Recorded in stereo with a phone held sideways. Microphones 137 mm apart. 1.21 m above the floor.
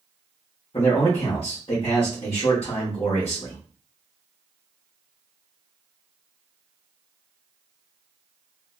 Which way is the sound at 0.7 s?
50° left (ahead or behind).